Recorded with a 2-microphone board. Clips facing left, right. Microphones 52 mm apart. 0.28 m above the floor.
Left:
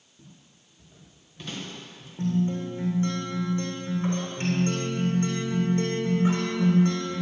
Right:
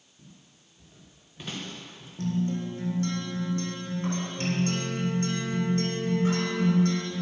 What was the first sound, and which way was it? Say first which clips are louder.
Footsteps: left 1 dB; 15° left (ahead or behind).